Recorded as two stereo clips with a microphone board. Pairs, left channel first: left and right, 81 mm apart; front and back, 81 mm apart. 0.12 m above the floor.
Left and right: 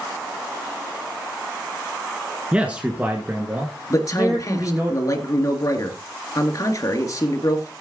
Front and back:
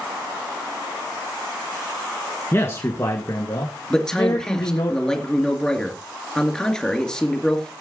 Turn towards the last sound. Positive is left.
turn(degrees=80)